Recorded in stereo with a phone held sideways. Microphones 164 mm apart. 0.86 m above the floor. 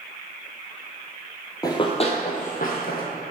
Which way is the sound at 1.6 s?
25° left (ahead or behind).